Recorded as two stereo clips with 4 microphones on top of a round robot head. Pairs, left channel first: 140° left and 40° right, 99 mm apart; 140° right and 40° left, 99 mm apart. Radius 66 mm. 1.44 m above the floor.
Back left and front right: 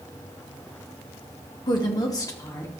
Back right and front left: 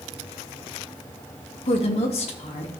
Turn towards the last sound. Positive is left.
turn(degrees=-155)